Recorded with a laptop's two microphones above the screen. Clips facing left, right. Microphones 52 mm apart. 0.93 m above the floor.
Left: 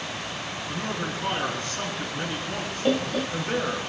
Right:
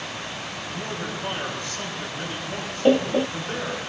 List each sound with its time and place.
0.7 s a man speaking: 50° left (ahead or behind), 8 m
2.9 s laughter: 30° right (ahead or behind), 0.5 m